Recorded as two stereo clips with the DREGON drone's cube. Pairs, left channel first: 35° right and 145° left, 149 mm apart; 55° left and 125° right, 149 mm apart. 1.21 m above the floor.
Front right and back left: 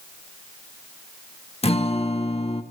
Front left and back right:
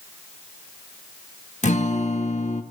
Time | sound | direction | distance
1.6 | a guitar | 15° left | 1.6 m